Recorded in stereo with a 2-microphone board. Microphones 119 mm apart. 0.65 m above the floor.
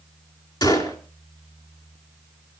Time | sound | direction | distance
0.6 | a gunshot | 35° left (ahead or behind) | 4 m